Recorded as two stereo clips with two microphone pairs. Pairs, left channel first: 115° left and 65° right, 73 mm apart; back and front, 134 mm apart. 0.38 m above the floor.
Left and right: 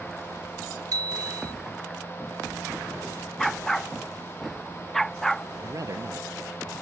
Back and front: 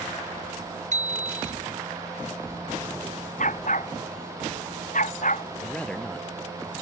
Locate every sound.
0.9 s a bicycle bell: 30° right
3.4 s a dog barking: 160° right
5.6 s a man speaking: 100° right